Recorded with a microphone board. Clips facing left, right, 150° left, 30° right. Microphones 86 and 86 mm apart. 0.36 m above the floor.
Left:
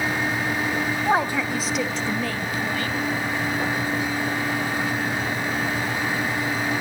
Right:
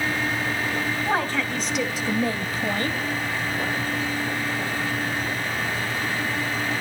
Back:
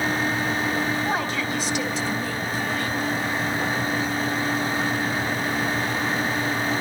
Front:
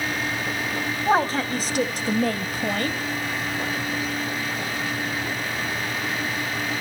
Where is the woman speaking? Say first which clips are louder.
Left 4 dB, front 4 dB; 25° left, 2.5 m; by 3.0 s 50° right, 2 m.